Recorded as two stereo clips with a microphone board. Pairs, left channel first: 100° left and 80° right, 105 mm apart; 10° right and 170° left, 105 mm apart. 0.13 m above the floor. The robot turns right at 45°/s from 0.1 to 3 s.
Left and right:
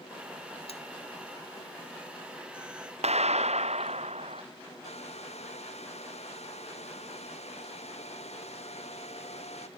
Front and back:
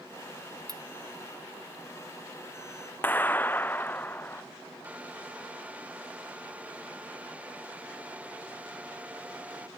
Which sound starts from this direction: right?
A clap, at 3.0 s.